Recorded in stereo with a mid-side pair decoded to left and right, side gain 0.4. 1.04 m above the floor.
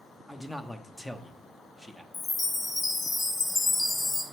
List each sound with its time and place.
0.3 s a man speaking: 10° left, 0.8 m
2.1 s a chime: 40° left, 1.0 m